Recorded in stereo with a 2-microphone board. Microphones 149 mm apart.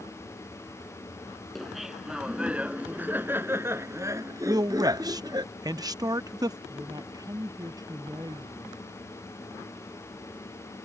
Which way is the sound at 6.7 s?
25° right (ahead or behind).